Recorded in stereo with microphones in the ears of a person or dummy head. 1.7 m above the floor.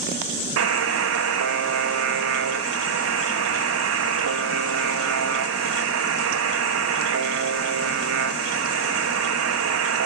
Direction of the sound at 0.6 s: 75° right (ahead or behind).